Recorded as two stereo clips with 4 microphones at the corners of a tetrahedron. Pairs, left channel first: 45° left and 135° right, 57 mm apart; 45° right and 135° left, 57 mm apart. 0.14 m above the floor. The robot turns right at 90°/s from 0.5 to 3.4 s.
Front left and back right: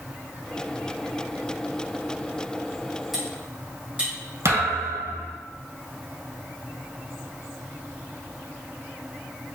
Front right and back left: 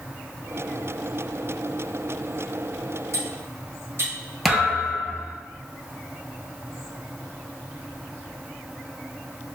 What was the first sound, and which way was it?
Cutlery clinking, 140° left.